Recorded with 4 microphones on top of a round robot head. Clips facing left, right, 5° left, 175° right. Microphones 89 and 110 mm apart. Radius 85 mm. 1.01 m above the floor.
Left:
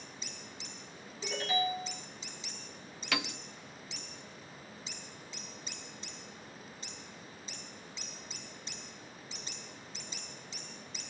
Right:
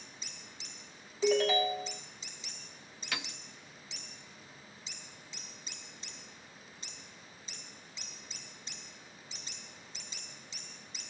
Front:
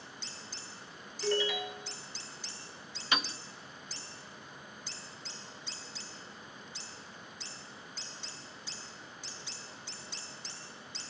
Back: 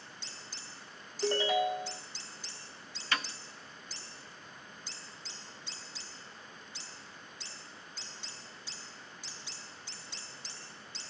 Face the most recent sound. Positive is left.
turn(degrees=75)